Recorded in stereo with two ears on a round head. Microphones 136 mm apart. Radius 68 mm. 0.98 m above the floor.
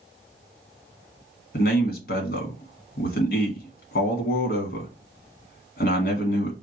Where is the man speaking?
65° left (ahead or behind), 1.7 m.